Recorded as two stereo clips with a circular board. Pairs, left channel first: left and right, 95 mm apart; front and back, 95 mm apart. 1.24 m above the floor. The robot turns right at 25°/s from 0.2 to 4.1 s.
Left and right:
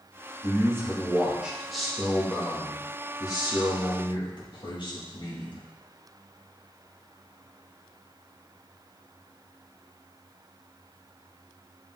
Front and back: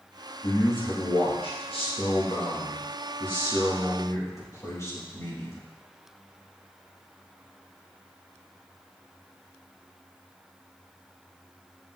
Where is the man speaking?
35° right, 2 m; by 5.6 s 55° left, 2 m.